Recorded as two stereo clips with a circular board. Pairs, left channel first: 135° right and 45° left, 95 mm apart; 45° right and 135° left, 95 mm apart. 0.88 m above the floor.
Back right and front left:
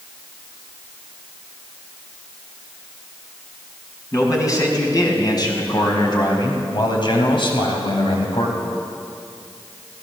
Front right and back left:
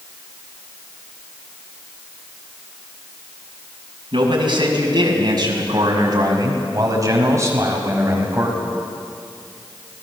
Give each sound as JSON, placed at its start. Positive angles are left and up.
{"t": 4.1, "sound": "a man speaking", "azimuth_deg": 170, "distance_m": 5.5}